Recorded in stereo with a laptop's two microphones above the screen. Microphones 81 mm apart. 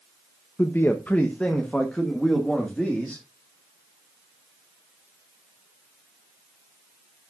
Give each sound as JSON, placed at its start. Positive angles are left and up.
{"t": 0.6, "sound": "a man speaking", "side_deg": 30, "distance_m": 0.8}